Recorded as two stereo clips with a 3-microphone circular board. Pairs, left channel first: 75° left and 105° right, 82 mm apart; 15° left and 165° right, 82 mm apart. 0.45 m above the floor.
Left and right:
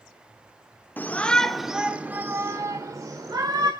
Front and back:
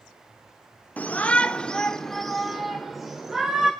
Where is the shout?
55° left, 1.0 m; by 3.7 s 85° right, 1.8 m.